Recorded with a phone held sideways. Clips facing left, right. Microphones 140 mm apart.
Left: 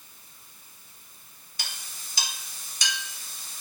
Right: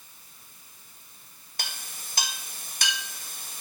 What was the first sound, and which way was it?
A clink, 60° right (ahead or behind).